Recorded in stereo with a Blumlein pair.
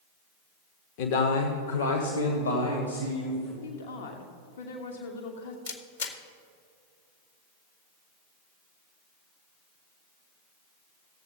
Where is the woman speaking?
60° left, 1.1 m.